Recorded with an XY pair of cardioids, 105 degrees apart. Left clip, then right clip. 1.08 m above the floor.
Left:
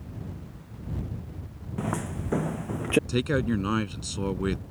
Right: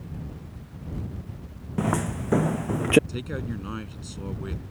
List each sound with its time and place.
1.8 s footsteps: 30° right
3.1 s a man speaking: 55° left